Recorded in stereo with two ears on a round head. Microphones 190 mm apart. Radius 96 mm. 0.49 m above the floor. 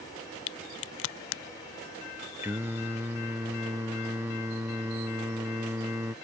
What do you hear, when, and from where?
0.5 s a crack: 70° left (ahead or behind)
2.4 s singing: 10° right (ahead or behind)